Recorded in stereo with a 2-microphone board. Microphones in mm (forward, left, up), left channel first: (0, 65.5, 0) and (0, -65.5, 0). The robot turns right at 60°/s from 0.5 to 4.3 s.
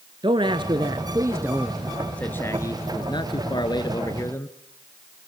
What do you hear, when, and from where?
0.2 s a man speaking: 85° right, 1.2 m; by 4.6 s 145° left, 1.2 m